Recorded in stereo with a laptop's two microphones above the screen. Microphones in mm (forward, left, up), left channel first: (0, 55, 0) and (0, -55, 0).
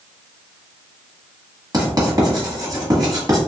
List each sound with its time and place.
1.7 s writing: 35° right (ahead or behind), 1.2 m